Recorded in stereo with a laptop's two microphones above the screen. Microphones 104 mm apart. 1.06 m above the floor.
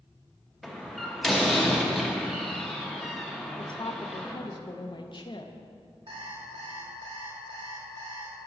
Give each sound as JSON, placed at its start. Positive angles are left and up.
{"t": 0.6, "sound": "a door slam", "side_deg": 0, "distance_m": 0.6}
{"t": 3.6, "sound": "a woman speaking", "side_deg": 50, "distance_m": 0.7}
{"t": 6.1, "sound": "an alarm clock", "side_deg": -60, "distance_m": 1.3}